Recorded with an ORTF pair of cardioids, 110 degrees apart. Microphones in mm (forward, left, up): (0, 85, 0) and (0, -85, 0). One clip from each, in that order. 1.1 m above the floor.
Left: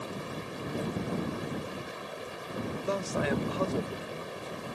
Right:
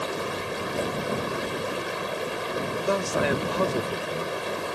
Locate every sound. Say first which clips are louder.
0.0 s running water: right 9 dB; 60° right
2.8 s a man speaking: right 6 dB; 40° right